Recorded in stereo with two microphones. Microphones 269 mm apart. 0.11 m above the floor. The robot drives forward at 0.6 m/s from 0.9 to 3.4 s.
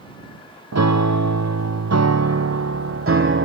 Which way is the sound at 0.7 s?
75° right (ahead or behind).